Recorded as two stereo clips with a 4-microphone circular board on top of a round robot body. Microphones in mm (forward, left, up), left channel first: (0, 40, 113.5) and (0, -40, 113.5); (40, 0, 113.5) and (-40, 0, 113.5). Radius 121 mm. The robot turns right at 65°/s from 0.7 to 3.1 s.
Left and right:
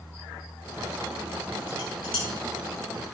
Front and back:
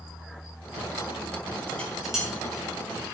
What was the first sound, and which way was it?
Dishes clattering, 65° left.